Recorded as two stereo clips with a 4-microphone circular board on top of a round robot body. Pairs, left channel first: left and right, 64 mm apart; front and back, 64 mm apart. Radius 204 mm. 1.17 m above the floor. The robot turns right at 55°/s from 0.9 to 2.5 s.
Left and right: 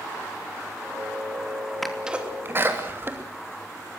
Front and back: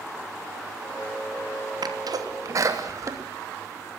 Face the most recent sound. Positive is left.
turn(degrees=-145)